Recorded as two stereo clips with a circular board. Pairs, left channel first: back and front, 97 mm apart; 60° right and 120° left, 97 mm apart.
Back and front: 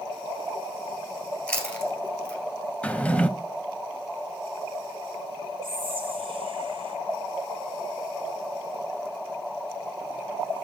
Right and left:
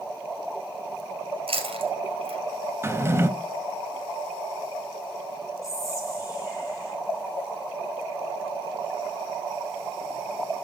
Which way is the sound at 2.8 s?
120° left.